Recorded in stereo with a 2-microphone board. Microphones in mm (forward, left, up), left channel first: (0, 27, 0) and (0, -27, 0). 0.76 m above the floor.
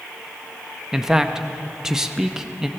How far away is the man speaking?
About 0.6 m.